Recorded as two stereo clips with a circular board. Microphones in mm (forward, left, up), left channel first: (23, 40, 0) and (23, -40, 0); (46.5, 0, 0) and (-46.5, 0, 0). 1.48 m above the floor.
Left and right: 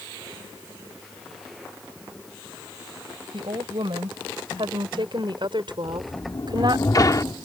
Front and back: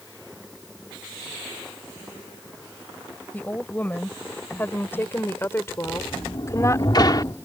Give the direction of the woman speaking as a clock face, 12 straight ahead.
2 o'clock.